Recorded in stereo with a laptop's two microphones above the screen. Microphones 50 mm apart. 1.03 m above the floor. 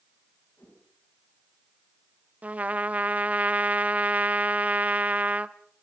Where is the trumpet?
30° right (ahead or behind), 0.6 m.